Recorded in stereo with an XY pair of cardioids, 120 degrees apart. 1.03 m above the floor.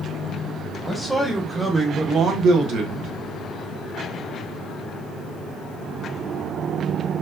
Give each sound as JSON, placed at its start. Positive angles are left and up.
{"t": 0.8, "sound": "a man speaking", "azimuth_deg": 0, "distance_m": 1.3}